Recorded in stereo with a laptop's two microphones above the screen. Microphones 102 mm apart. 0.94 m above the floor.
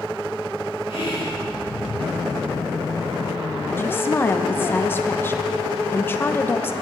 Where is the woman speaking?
20° left (ahead or behind), 0.7 m.